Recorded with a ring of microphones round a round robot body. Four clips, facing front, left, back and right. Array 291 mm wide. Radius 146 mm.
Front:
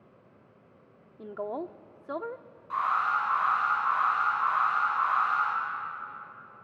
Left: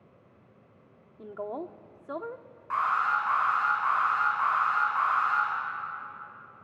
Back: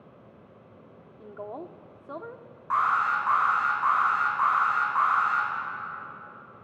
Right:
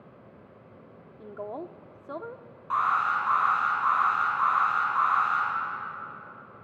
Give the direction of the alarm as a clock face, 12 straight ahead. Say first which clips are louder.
Right 1 dB, back 3 dB; 5 o'clock.